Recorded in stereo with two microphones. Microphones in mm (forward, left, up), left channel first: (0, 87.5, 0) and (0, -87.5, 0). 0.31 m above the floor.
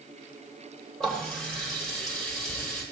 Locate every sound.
1.0 s a running tap: 5° left (ahead or behind), 8 m